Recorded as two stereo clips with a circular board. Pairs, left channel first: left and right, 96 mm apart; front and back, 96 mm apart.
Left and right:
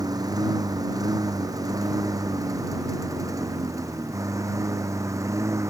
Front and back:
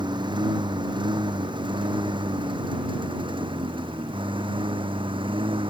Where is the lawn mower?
140° right; by 5.7 s 150° right.